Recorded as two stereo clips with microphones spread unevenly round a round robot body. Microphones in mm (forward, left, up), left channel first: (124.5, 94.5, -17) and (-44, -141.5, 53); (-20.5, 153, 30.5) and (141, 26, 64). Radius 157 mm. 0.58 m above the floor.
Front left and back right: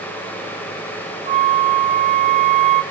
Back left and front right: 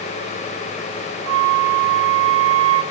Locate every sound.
1.3 s a flute: 55° right, 0.8 m